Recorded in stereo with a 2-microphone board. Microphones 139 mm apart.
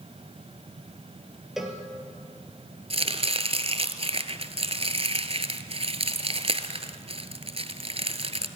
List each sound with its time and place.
1.6 s a cowbell: 5° right (ahead or behind), 3 m
2.9 s chopping: 45° right (ahead or behind), 1.2 m